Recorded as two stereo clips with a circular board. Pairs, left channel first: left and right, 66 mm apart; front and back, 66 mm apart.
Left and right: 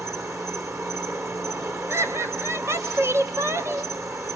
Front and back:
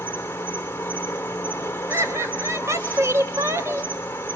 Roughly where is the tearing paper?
No tearing paper in this recording.